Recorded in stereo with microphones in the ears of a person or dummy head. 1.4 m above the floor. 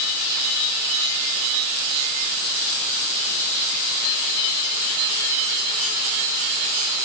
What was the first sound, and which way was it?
Only background noise.